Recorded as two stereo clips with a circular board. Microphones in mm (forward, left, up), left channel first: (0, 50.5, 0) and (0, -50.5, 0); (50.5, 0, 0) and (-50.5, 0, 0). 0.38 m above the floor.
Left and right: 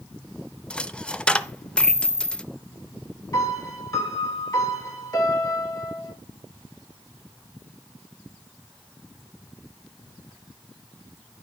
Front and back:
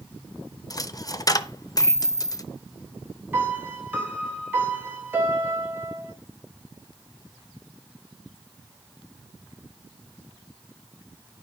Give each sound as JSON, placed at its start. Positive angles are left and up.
{"t": 0.7, "sound": "a dropped coin", "azimuth_deg": 15, "distance_m": 0.5}
{"t": 3.3, "sound": "a piano", "azimuth_deg": 120, "distance_m": 2.0}